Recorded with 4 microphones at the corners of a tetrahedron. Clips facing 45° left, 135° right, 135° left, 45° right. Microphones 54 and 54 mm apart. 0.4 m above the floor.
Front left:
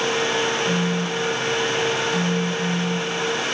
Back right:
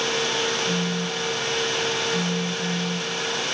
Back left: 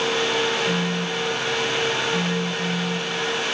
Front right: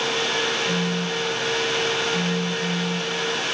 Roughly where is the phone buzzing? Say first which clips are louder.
Front left 3 dB, back left 1 dB; behind left.